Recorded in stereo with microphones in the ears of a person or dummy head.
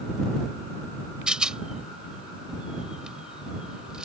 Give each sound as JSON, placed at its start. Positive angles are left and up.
{"t": 1.3, "sound": "a rattle", "side_deg": 0}